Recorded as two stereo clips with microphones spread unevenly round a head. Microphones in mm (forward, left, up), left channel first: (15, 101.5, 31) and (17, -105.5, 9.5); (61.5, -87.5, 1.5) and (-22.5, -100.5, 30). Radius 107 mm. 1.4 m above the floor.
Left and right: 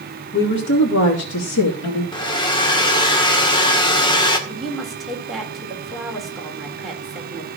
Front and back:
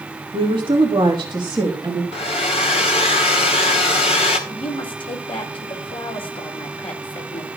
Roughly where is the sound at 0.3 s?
Behind left.